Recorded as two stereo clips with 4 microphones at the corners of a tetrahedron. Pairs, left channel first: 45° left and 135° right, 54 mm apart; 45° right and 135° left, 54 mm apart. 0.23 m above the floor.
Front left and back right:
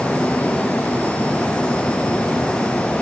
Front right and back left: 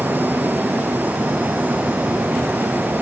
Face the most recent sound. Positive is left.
No sound to turn to.